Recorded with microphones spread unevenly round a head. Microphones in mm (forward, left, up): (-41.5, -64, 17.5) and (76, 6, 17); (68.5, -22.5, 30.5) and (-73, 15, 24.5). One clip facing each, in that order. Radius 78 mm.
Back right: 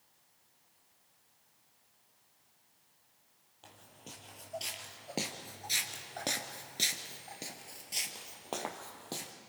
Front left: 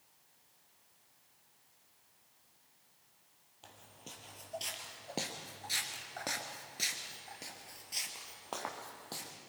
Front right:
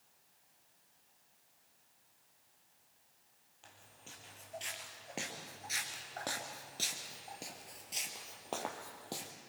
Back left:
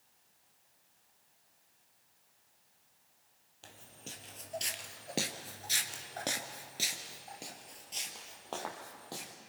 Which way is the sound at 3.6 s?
120° left.